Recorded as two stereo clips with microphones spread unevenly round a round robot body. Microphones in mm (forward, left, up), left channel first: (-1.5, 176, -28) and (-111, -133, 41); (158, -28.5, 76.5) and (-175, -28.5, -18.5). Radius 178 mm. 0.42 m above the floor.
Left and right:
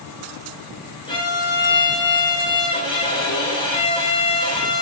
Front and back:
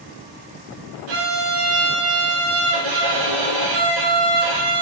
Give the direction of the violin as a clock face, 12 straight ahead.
7 o'clock.